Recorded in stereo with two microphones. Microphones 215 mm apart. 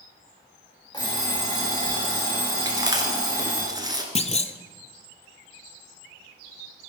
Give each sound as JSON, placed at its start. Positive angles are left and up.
{"t": 0.9, "sound": "an alarm clock", "side_deg": 15, "distance_m": 5.0}
{"t": 2.6, "sound": "chewing", "side_deg": -20, "distance_m": 1.4}
{"t": 4.2, "sound": "a clunk", "side_deg": 30, "distance_m": 0.6}